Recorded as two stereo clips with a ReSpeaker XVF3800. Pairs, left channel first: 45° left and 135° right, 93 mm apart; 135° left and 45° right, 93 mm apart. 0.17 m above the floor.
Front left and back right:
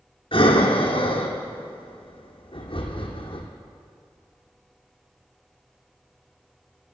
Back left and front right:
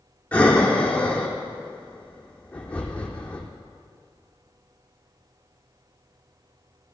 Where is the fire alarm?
No fire alarm in this recording.